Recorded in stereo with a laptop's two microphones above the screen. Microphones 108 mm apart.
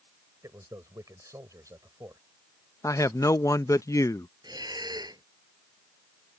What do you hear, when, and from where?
0.4 s a man speaking: 30° right (ahead or behind)
2.8 s a man speaking: 30° left (ahead or behind)
4.4 s breathing: 40° right (ahead or behind)